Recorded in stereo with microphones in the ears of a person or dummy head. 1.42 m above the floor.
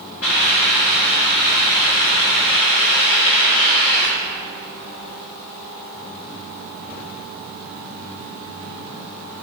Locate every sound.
0.2 s a hiss: 85° left, 4.5 m